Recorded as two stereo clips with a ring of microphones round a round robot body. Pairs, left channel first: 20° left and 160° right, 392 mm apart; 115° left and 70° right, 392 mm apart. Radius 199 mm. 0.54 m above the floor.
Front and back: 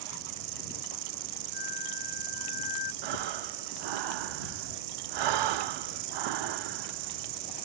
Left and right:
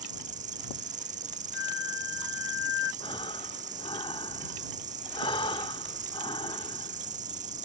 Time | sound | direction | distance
0.0 | an insect | 140° right | ?
1.5 | a flute | 90° left | ?
3.0 | breathing | 170° right | ?